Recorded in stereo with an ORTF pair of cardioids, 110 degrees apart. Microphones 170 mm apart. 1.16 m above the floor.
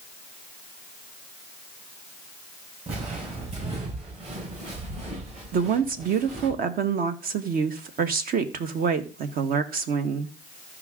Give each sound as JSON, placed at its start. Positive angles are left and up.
{"t": 2.9, "sound": "footsteps", "azimuth_deg": -40, "distance_m": 7.5}
{"t": 5.5, "sound": "a woman speaking", "azimuth_deg": -60, "distance_m": 1.5}